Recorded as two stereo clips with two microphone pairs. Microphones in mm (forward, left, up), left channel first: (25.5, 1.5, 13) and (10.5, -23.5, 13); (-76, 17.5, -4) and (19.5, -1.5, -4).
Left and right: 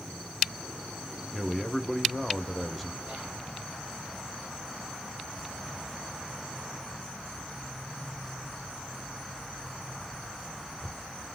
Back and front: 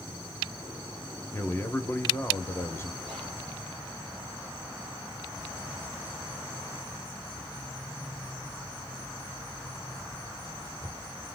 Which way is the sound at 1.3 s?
145° left.